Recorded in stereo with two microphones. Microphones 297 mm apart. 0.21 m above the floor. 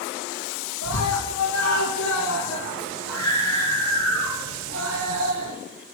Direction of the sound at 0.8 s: 55° left (ahead or behind).